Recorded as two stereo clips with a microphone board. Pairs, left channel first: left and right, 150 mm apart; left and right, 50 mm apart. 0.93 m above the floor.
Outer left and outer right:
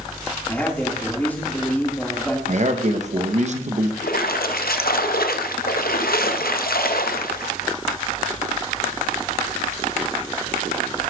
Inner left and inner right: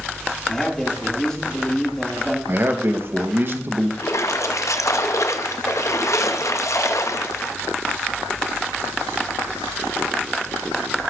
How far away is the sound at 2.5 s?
About 0.9 m.